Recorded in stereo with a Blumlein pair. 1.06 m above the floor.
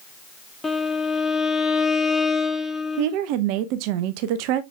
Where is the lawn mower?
I don't hear a lawn mower.